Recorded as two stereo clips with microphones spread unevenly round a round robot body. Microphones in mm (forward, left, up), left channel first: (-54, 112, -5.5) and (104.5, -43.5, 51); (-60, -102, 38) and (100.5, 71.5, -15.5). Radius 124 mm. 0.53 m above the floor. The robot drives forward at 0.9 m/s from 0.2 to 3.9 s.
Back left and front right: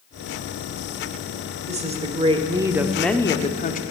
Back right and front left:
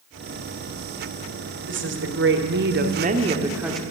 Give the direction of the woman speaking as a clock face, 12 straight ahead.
11 o'clock.